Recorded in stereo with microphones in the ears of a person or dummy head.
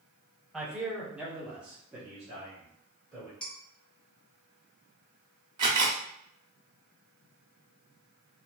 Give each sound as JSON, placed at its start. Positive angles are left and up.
{"t": 0.5, "sound": "a man speaking", "side_deg": -5, "distance_m": 0.9}
{"t": 3.4, "sound": "dishes clattering", "side_deg": 5, "distance_m": 1.1}
{"t": 5.6, "sound": "a camera shutter", "side_deg": -20, "distance_m": 0.7}